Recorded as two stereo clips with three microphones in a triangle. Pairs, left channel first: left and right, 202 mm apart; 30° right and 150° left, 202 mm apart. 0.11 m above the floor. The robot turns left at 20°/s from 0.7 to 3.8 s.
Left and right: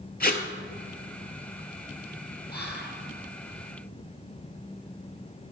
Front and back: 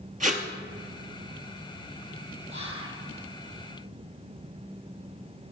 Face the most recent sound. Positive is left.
turn(degrees=75)